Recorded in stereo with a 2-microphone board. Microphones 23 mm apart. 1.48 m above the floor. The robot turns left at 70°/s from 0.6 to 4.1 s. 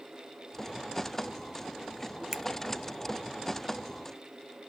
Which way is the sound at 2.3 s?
40° right (ahead or behind).